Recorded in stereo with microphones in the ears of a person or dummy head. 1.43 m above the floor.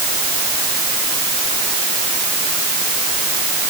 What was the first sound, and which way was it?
Only background noise.